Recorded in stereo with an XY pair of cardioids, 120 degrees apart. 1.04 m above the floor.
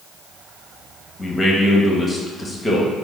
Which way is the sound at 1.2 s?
15° left.